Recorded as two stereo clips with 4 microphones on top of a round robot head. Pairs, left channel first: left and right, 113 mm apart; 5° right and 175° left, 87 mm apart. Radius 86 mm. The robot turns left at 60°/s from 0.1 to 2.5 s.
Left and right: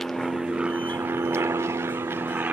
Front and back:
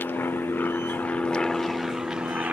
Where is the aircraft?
5° left; by 2.5 s 135° right.